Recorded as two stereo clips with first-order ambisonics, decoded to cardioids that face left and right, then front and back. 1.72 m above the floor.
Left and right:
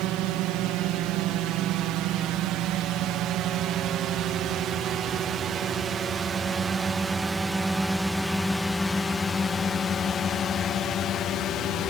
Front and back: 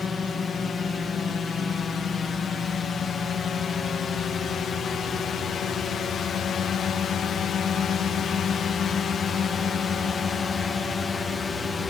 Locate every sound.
0.0 s a drone: 70° right; by 11.9 s 70° left